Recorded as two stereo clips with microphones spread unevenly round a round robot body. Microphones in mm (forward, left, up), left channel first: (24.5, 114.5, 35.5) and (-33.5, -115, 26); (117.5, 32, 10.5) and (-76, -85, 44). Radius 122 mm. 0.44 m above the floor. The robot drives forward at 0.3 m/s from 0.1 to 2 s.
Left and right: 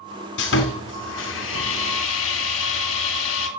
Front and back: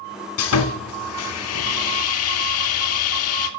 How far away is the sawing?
About 3 m.